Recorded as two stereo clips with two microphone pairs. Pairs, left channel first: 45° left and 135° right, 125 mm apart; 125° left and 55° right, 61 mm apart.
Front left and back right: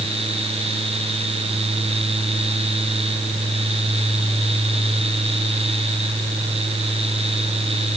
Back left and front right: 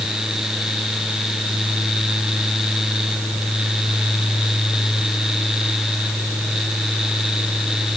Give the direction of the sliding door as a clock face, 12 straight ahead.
No sliding door in this recording.